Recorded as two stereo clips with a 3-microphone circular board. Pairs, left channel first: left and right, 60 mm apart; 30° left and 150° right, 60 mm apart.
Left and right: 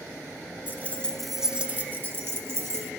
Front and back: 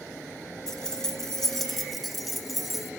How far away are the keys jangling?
About 1.2 m.